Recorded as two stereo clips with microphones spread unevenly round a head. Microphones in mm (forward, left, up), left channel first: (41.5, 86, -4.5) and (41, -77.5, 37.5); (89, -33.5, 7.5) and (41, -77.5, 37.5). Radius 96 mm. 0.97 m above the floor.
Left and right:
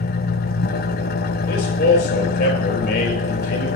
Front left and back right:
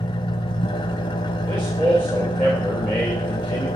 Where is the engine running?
60° left, 0.9 m.